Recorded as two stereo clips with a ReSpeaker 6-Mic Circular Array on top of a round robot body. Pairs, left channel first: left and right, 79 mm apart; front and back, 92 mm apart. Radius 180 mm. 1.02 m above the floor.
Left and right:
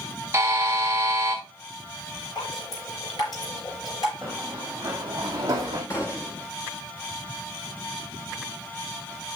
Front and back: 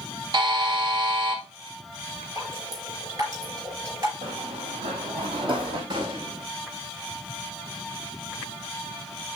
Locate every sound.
0.3 s a buzzer: 150° right, 1.8 m
2.4 s dripping: 125° left, 5 m
4.2 s running footsteps: 175° right, 2 m; by 5.8 s 145° right, 3 m
5.9 s a gunshot: 145° left, 0.6 m